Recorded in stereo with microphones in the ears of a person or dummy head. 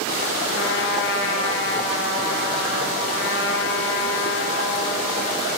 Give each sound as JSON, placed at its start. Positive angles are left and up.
{"t": 0.5, "sound": "a trumpet", "side_deg": 70, "distance_m": 3.5}